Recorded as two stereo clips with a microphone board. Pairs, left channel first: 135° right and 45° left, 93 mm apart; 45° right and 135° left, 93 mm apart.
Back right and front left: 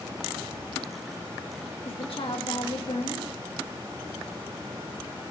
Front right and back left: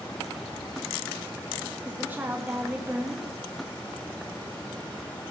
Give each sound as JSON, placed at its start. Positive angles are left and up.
{"t": 1.9, "sound": "a woman speaking", "azimuth_deg": -155, "distance_m": 1.5}